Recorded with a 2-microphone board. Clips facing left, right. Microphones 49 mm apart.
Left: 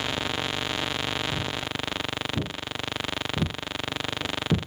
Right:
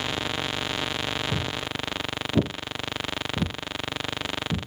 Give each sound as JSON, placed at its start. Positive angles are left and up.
{"t": 1.3, "sound": "footsteps", "side_deg": -70, "distance_m": 1.3}